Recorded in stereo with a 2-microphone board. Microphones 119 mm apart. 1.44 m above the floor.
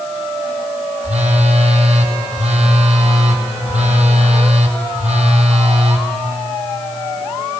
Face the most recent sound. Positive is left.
turn(degrees=-75)  # may be behind; listen again after turning